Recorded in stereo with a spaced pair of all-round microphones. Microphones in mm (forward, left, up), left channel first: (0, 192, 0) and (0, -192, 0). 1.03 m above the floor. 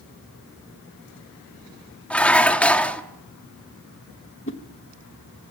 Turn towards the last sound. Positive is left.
turn(degrees=30)  # may be behind; listen again after turning